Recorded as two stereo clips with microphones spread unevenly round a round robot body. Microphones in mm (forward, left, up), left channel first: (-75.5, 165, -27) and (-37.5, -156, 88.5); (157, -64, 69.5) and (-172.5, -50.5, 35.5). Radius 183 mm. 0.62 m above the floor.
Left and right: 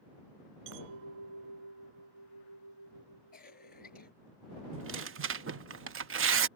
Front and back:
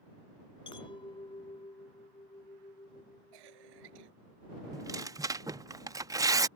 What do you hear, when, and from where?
0.7 s a clink: 80° right
3.3 s a cough: 160° left
4.7 s tearing paper: 130° right